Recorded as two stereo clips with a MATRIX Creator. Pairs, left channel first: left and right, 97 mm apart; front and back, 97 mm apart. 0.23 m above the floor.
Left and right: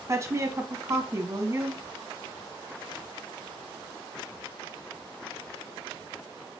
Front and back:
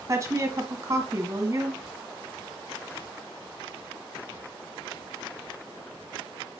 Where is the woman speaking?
135° right, 1.6 m.